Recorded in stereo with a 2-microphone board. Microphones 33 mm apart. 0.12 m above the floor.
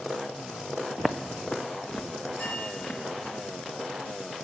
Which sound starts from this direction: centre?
Footsteps, at 1.0 s.